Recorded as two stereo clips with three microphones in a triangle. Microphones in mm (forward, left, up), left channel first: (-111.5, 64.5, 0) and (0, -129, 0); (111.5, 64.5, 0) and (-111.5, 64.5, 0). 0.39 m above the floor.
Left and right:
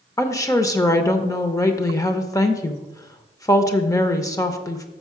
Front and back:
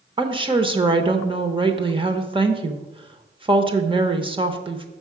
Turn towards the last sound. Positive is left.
turn(degrees=170)